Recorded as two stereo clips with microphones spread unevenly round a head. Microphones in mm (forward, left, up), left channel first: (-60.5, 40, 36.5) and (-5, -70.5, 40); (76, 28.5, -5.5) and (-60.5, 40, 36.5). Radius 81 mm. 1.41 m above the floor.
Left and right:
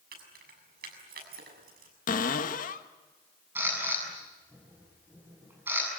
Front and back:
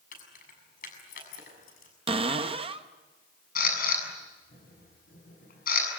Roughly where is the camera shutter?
Ahead.